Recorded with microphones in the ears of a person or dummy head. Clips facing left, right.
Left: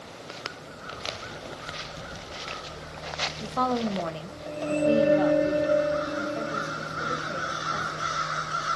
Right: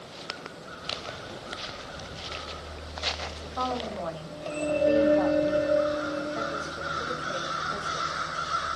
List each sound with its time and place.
3.4 s a woman speaking: 60° left (ahead or behind), 0.7 m; by 8.2 s 10° right (ahead or behind), 2.5 m